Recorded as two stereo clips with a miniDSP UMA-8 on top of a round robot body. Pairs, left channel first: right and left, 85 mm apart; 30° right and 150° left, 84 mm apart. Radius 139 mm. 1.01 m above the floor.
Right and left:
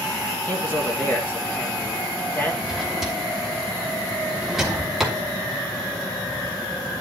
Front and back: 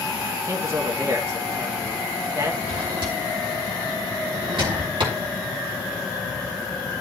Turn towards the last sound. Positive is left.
turn(degrees=175)